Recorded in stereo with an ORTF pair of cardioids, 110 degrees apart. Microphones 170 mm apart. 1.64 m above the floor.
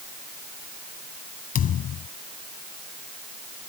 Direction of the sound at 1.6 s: 60° left.